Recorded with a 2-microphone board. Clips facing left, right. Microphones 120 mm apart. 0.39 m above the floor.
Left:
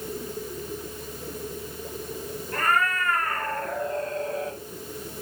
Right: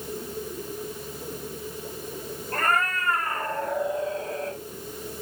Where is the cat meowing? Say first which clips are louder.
Left 1 dB; 40° right (ahead or behind), 2.5 m; by 4.6 s 5° left (ahead or behind), 2.5 m.